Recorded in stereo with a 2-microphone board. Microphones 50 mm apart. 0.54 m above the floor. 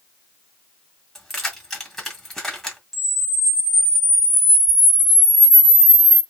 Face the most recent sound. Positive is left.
turn(degrees=-5)  # may be behind; listen again after turning